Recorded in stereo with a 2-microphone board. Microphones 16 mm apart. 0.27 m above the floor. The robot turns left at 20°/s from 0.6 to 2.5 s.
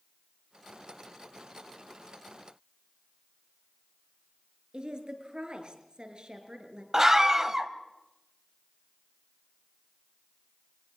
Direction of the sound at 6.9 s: 35° right (ahead or behind).